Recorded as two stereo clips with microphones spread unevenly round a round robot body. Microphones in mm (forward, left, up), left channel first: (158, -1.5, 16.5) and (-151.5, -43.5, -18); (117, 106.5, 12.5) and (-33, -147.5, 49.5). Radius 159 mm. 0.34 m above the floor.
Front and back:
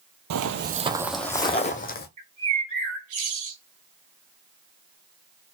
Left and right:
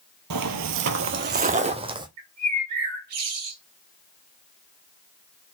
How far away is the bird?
About 2 m.